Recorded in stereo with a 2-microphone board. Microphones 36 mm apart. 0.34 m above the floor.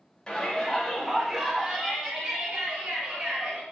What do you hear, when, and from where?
0.3 s a shout: 25° left (ahead or behind), 0.9 m; by 3.6 s 40° right (ahead or behind), 1.8 m